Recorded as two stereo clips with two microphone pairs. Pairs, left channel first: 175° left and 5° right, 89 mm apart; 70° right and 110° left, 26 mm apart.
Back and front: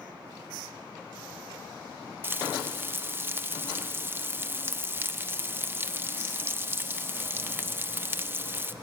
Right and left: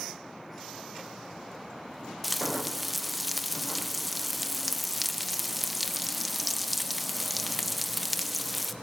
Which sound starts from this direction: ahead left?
Frying, at 2.2 s.